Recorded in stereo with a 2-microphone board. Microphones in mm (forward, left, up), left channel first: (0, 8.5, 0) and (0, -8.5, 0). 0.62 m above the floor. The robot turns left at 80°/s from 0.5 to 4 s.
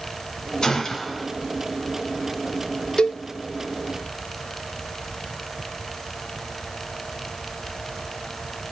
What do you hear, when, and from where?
0.6 s a gunshot: 35° left, 1.9 m; by 1.3 s 20° right, 1.9 m
3.0 s a cowbell: 45° left (ahead or behind), 0.8 m; by 3.2 s 65° left (ahead or behind), 0.8 m